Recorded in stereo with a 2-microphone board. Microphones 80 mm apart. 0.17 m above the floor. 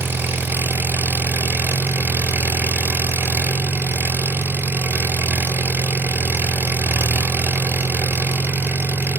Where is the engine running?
25° right (ahead or behind), 1.0 m.